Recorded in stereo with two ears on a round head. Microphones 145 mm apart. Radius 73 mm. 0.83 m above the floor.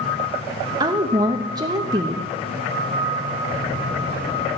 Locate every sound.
0.8 s a woman speaking: 25° right (ahead or behind), 0.7 m
3.5 s a buzzer: 20° left (ahead or behind), 8 m